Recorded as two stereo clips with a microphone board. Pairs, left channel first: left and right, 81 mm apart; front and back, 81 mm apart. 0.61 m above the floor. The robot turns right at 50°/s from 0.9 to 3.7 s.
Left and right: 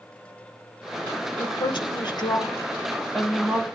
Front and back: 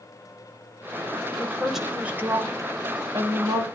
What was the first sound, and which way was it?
A woman speaking, 75° left.